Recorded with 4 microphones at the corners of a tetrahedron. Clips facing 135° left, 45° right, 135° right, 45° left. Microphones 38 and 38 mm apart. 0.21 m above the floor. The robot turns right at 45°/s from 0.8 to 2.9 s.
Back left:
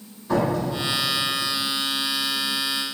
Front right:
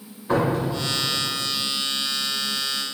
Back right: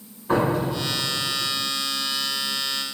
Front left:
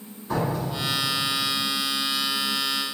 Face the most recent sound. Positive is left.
turn(degrees=-5)